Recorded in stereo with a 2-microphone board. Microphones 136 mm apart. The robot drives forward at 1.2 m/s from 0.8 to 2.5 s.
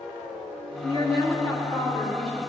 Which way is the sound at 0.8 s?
30° left (ahead or behind).